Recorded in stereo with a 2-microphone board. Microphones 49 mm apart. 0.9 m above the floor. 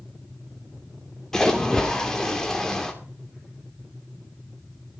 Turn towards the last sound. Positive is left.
turn(degrees=10)  # may be behind; listen again after turning